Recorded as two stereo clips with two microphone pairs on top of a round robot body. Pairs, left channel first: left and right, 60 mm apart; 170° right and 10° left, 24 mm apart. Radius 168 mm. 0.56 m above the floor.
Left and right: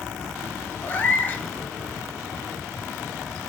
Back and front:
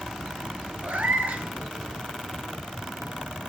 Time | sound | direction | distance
0.8 | a cat meowing | 30° left | 0.8 m